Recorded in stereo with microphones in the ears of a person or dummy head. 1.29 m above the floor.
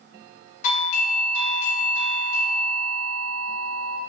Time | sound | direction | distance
0.6 | a doorbell | 45° left (ahead or behind) | 0.5 m